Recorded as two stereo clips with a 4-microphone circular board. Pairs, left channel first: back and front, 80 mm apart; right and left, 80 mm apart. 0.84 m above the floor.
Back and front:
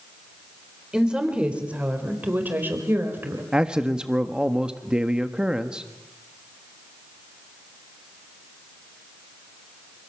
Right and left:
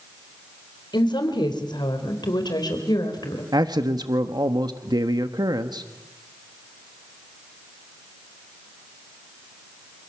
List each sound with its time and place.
0.9 s a woman speaking: 80° right, 4 m; by 3.4 s 60° right, 4.5 m
3.5 s a man speaking: 80° left, 1.2 m